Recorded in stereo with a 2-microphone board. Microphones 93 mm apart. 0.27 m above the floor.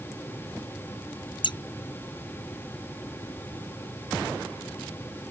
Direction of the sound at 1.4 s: 55° left (ahead or behind).